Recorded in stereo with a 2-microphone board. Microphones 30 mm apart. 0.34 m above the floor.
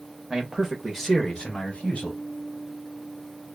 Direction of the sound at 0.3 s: 30° right (ahead or behind).